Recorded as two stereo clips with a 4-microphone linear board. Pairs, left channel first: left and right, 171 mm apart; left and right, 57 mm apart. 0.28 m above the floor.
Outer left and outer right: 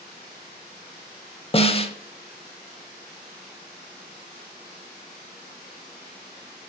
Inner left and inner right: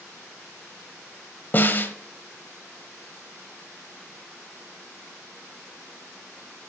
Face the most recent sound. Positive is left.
turn(degrees=35)  # may be behind; listen again after turning